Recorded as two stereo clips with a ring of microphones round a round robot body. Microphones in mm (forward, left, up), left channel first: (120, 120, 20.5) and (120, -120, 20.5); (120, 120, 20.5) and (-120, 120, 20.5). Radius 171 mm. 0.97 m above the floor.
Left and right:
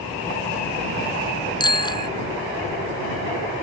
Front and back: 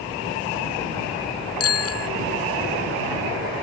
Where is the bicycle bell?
20° left.